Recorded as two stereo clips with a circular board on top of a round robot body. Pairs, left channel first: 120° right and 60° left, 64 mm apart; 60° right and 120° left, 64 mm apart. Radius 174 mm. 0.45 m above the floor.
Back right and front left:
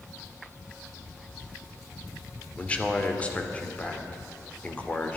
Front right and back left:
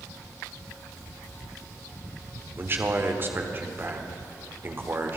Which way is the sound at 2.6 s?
170° left.